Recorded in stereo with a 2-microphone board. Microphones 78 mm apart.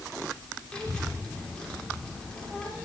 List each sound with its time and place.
0.7 s a child speaking: 10° left (ahead or behind), 3 m